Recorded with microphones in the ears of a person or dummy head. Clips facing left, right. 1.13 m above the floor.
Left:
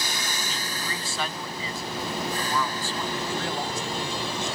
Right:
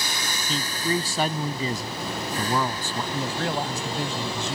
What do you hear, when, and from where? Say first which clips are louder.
0.5 s a man speaking: right 8 dB; 30° right (ahead or behind); by 3.0 s 35° right (ahead or behind)
3.1 s a man speaking: right 5 dB; 55° right (ahead or behind)